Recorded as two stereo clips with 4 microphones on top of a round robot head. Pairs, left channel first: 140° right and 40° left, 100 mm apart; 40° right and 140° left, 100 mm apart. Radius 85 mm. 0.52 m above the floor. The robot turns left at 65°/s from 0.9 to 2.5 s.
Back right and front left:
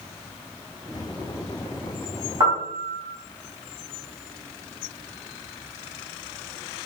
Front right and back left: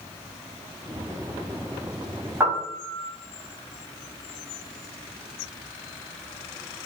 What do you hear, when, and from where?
2.4 s a piano: 80° left, 1.3 m; by 3.1 s 75° left, 1.3 m